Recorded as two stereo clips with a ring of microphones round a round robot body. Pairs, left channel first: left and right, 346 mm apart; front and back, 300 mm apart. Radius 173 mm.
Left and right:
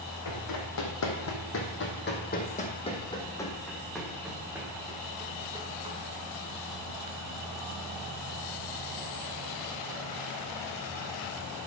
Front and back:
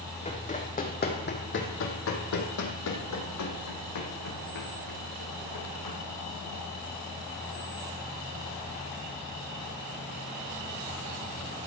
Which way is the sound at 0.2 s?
65° left.